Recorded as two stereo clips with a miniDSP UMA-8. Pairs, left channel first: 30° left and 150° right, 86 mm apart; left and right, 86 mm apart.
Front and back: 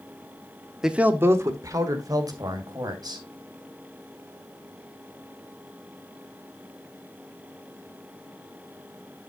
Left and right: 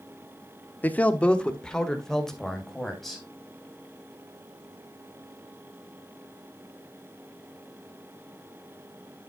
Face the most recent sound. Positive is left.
turn(degrees=175)